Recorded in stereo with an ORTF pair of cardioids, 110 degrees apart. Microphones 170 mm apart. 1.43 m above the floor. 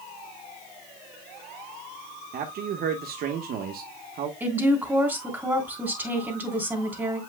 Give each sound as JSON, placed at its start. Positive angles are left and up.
{"t": 2.3, "sound": "a man speaking", "azimuth_deg": -65, "distance_m": 1.4}
{"t": 4.4, "sound": "a woman speaking", "azimuth_deg": -10, "distance_m": 3.0}